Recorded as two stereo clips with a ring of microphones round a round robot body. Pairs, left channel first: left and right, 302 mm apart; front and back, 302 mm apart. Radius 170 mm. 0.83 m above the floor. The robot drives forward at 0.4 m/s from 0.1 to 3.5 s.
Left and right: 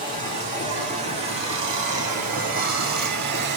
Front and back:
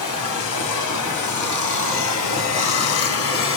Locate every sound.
0.0 s running water: 15° right, 2 m; by 3.6 s 40° right, 1.0 m